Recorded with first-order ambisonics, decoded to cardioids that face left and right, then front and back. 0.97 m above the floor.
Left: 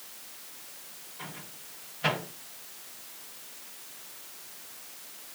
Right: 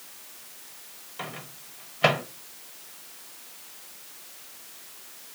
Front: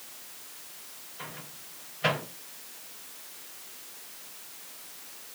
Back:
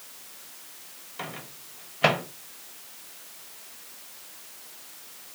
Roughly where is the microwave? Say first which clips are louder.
Right 6 dB, back 5 dB; behind right.